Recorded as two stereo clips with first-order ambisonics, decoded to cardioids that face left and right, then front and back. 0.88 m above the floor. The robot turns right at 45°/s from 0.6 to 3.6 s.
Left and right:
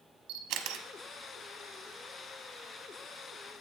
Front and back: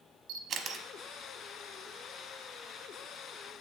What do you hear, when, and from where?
0.3 s a camera shutter: 130° right, 0.8 m; by 0.8 s 120° right, 0.8 m